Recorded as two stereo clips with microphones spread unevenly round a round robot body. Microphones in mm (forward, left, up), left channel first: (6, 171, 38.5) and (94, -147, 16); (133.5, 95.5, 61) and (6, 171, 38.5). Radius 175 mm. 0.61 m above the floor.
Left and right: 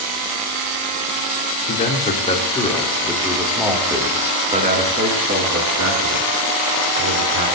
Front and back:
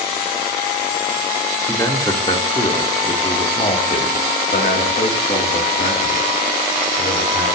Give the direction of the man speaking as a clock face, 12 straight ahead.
11 o'clock.